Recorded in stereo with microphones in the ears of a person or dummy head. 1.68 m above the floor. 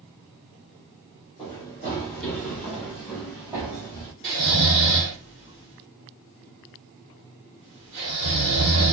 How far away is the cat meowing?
No cat meowing in this recording.